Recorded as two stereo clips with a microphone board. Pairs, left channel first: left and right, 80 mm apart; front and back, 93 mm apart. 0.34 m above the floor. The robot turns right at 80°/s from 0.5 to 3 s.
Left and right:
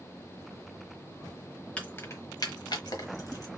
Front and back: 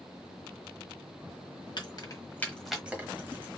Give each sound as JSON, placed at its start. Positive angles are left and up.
{"t": 1.8, "sound": "keys jangling", "azimuth_deg": 15, "distance_m": 1.1}